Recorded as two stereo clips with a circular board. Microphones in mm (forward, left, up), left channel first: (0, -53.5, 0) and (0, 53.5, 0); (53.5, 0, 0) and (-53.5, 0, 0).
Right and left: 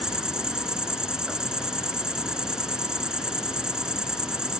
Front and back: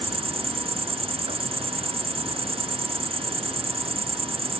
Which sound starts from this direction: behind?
An insect, at 0.0 s.